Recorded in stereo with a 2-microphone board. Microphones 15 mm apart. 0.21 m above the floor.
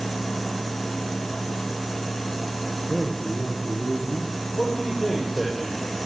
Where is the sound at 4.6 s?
10° right (ahead or behind), 7 m.